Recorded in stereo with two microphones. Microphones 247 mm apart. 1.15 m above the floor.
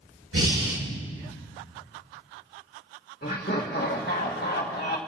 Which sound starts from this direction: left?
Laughter, at 3.2 s.